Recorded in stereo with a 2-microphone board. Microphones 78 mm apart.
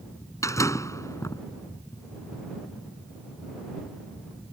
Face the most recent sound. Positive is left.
turn(degrees=40)  # may be behind; listen again after turning